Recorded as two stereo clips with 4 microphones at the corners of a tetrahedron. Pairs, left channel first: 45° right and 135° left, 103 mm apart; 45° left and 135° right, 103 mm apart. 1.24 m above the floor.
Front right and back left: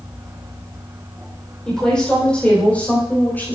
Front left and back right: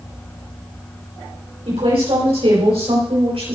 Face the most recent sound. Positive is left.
turn(degrees=-115)